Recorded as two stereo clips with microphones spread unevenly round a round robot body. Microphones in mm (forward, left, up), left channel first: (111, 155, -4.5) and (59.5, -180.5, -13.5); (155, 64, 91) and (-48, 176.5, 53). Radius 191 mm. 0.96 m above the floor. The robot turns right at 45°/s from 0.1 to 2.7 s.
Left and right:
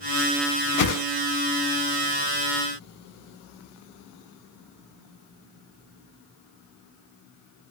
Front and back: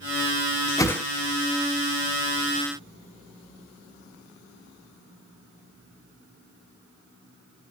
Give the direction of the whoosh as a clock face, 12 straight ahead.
11 o'clock.